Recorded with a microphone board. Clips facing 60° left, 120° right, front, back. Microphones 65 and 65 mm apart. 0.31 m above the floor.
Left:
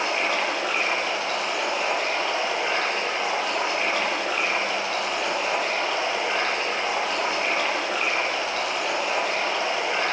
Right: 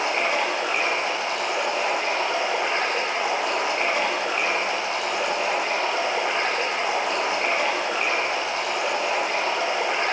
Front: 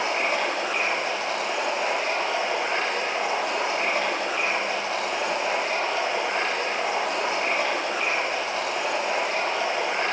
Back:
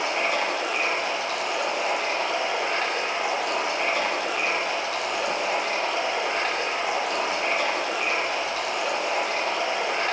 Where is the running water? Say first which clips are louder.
Right 1 dB, even; 50° right, 6 m.